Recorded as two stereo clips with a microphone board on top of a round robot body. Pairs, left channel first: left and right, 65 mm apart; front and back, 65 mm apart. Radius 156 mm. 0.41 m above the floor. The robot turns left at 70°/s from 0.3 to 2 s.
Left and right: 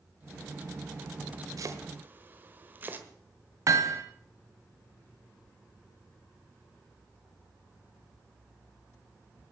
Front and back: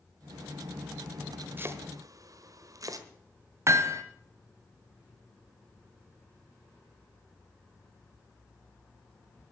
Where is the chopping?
120° right, 1.3 m; by 3.1 s 150° right, 1.3 m.